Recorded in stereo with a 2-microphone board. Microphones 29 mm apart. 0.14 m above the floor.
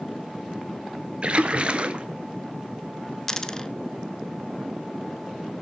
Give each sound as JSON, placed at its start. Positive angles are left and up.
{"t": 1.2, "sound": "a splash", "side_deg": -45, "distance_m": 0.9}
{"t": 3.3, "sound": "a dropped coin", "side_deg": 15, "distance_m": 0.6}